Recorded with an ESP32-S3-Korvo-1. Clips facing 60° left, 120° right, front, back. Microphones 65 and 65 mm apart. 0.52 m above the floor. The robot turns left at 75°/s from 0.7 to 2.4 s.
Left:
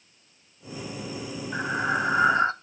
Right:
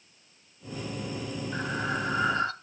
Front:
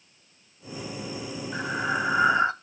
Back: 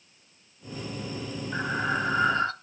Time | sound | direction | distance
1.5 | breathing | 110° left | 0.5 m